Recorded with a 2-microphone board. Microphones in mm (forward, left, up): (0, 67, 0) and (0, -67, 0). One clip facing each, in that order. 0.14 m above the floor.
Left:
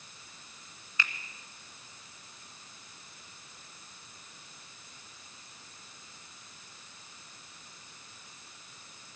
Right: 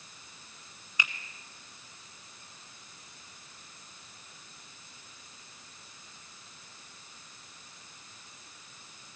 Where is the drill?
I don't hear a drill.